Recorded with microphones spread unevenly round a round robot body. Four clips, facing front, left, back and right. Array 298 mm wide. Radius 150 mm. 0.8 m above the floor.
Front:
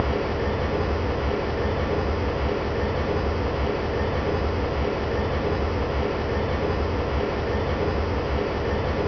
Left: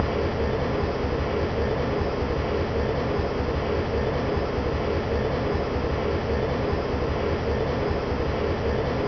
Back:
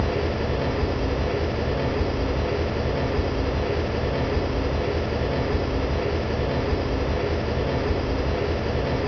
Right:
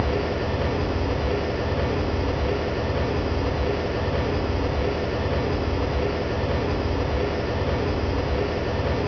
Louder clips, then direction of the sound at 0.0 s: Even, even; 165° right.